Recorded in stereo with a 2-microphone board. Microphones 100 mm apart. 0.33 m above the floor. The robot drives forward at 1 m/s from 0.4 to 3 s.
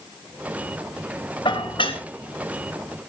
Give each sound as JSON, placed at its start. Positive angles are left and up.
{"t": 1.4, "sound": "dishes clattering", "side_deg": 55, "distance_m": 3.0}